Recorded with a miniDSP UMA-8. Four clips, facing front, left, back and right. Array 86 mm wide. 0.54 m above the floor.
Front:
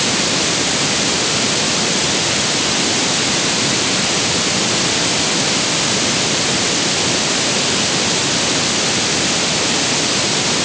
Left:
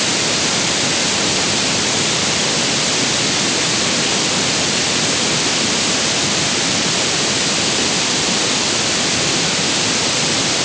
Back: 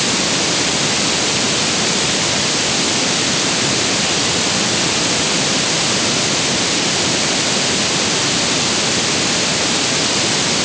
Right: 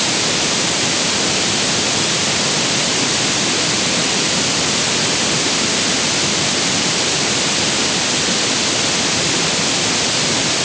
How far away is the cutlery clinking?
I don't hear cutlery clinking.